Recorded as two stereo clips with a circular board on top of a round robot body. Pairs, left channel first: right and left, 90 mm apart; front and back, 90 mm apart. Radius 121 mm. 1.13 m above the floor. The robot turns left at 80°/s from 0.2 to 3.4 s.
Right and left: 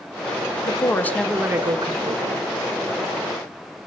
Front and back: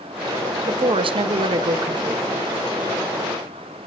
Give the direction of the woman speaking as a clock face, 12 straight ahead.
4 o'clock.